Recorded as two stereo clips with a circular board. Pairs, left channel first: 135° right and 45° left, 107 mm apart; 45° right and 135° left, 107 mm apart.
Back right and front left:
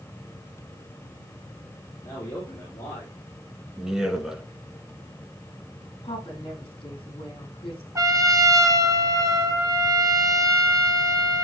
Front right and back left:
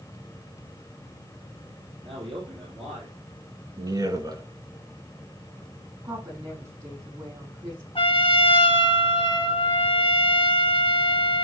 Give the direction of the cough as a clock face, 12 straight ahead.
I don't hear a cough.